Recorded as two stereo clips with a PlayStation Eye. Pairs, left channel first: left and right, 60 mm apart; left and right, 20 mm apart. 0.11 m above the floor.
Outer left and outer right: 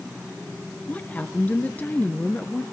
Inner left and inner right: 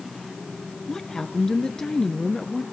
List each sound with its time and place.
0.9 s a woman speaking: 30° left (ahead or behind), 1.6 m